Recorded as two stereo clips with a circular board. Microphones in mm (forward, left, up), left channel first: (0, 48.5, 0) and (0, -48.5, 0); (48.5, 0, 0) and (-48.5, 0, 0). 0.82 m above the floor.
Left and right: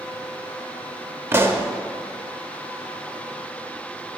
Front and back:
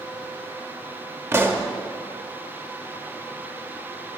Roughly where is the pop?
Behind right.